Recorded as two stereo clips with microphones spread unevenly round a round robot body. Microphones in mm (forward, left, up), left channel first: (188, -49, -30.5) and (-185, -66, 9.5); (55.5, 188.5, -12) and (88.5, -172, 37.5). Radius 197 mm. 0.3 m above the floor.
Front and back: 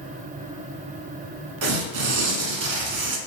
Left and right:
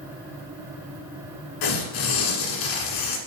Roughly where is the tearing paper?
Behind left.